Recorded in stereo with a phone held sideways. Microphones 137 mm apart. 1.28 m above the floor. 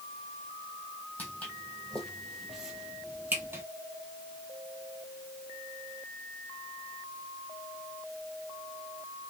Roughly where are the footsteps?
Centre.